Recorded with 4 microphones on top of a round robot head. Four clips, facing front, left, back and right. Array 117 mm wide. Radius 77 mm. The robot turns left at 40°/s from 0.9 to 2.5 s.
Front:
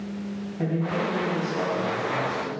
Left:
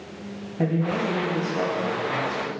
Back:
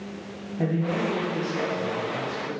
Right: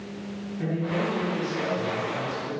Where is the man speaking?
105° left, 3.5 m; by 2.5 s 40° left, 3.5 m.